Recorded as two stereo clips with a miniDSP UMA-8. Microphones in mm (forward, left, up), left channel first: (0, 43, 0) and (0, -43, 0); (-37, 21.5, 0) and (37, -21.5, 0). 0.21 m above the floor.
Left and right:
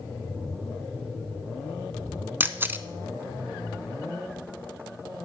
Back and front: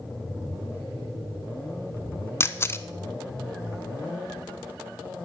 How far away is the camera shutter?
About 0.5 m.